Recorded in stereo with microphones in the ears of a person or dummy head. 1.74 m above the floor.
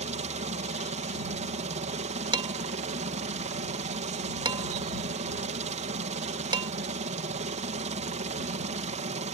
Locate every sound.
0.0 s a helicopter: 30° right (ahead or behind)
2.3 s dishes clattering: 20° right (ahead or behind)